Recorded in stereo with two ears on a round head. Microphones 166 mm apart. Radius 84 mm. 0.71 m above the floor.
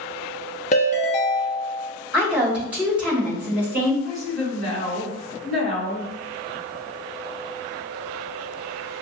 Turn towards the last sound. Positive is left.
turn(degrees=5)  # may be behind; listen again after turning